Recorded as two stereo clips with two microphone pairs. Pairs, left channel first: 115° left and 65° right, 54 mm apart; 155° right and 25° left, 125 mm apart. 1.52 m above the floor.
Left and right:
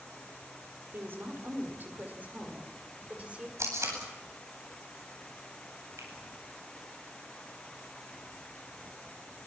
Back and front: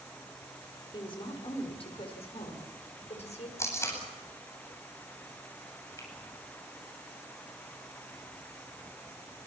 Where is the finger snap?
90° right, 10 m.